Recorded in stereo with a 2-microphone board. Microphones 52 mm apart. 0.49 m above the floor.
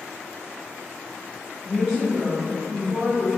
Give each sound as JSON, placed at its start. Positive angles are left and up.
{"t": 1.6, "sound": "a woman speaking", "side_deg": 5, "distance_m": 0.8}